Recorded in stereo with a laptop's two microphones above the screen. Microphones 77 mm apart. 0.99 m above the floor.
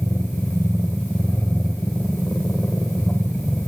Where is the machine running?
25° left (ahead or behind), 1.2 m.